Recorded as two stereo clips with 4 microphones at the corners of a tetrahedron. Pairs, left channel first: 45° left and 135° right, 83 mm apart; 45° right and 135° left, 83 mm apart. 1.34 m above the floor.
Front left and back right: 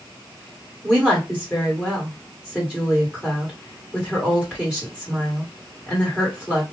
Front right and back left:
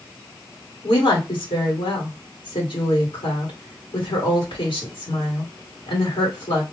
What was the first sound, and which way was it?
A woman speaking, 50° right.